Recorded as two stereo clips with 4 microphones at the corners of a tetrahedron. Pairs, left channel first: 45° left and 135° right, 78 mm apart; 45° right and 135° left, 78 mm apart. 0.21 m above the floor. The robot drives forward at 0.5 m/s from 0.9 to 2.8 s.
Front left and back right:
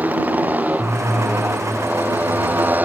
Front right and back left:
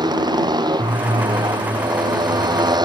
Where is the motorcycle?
155° left.